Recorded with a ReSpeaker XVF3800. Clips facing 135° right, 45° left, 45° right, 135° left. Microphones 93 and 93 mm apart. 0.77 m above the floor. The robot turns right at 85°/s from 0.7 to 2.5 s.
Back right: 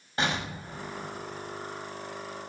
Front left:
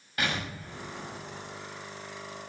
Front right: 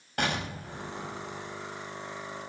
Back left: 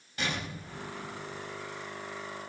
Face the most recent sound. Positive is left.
turn(degrees=80)